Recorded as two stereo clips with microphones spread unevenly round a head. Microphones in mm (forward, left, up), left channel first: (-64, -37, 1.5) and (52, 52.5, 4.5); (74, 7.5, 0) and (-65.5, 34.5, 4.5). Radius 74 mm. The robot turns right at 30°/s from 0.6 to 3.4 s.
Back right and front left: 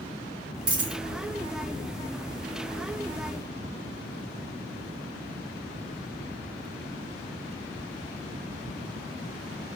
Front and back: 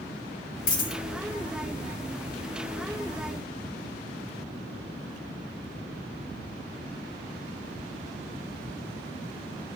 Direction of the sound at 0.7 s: 20° right.